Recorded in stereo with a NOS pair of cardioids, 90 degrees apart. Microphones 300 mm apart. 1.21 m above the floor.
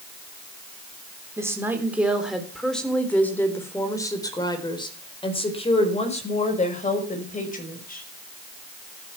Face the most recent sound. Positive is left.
turn(degrees=30)